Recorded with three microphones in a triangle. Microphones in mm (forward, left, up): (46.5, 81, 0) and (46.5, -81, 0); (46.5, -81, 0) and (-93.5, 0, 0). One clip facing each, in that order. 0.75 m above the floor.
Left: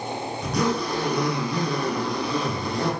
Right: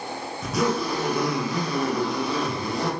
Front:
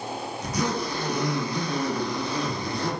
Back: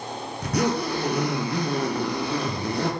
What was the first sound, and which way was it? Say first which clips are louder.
A zipper: right 1 dB, back 4 dB; straight behind.